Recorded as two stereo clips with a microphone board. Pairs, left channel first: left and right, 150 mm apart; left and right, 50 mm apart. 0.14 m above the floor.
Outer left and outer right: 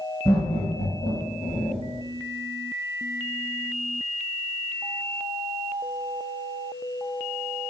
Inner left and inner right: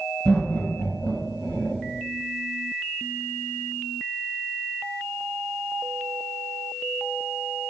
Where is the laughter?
15° left (ahead or behind), 1.4 m; by 1.8 s 30° left (ahead or behind), 1.1 m.